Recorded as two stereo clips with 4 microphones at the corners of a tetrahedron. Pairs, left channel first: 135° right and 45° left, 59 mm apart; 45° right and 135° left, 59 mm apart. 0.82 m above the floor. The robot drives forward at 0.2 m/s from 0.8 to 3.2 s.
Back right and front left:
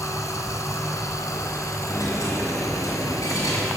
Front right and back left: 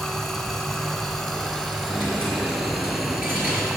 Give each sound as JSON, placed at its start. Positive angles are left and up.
{"t": 0.0, "sound": "running water", "azimuth_deg": -135, "distance_m": 1.9}
{"t": 1.9, "sound": "a dropped coin", "azimuth_deg": -160, "distance_m": 4.5}